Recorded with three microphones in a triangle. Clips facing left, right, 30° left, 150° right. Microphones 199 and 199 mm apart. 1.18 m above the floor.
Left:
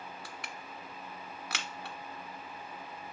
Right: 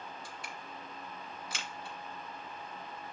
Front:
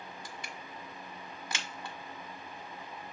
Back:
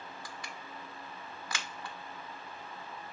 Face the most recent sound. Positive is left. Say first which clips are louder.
# even, front 1 dB
turn(degrees=95)